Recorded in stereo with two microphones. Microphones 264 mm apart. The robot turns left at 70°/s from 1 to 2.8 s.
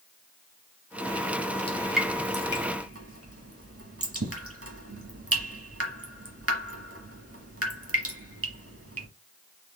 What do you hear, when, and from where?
1.7 s dripping: 20° left (ahead or behind), 1.4 m; by 9.1 s 60° right (ahead or behind), 1.4 m